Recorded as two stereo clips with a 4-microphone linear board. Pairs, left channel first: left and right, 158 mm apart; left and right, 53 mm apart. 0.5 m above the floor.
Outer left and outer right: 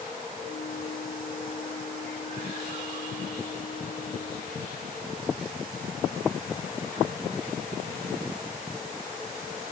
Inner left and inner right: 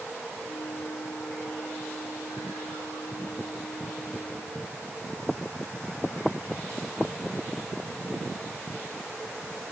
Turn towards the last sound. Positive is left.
turn(degrees=70)  # may be behind; listen again after turning